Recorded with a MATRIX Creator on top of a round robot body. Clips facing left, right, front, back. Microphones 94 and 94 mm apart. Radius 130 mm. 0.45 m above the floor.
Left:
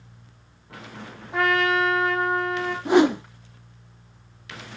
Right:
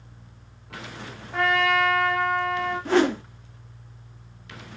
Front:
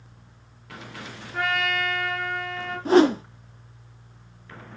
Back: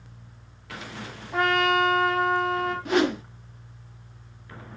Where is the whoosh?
25° left, 1.3 m.